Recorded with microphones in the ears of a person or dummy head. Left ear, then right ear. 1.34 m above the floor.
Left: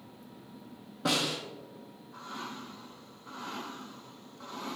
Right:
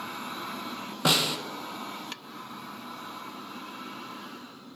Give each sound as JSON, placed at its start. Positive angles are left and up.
{"t": 1.1, "sound": "a snare drum", "side_deg": -60, "distance_m": 0.7}